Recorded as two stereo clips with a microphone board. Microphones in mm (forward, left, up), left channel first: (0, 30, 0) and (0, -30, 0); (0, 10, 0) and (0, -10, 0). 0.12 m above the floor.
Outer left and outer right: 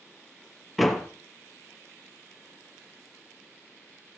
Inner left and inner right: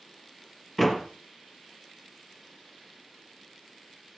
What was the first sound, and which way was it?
A door slam, centre (ahead or behind).